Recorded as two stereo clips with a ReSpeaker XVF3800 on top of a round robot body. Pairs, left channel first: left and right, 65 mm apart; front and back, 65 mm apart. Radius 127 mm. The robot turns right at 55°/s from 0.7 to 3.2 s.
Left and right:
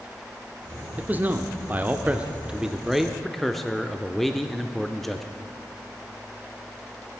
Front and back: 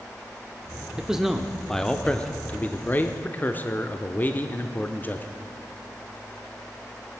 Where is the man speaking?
115° right, 0.9 m; by 5.3 s 5° left, 0.9 m.